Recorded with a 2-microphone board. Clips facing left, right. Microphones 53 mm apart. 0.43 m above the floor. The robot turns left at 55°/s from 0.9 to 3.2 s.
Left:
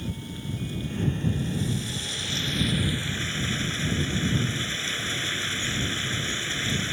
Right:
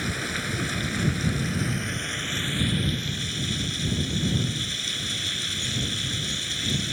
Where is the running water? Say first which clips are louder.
Right 7 dB; 80° right; by 6.9 s 155° left.